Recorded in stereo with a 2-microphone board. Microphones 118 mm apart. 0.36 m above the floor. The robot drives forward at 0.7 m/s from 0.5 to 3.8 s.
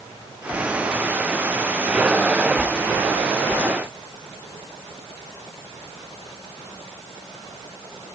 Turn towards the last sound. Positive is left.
No sound to turn to.